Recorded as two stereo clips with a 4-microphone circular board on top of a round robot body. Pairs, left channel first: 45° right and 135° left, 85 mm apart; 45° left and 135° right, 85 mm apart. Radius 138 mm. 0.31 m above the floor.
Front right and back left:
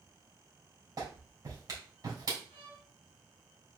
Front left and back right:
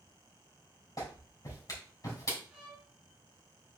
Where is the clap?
90° left, 3.5 m.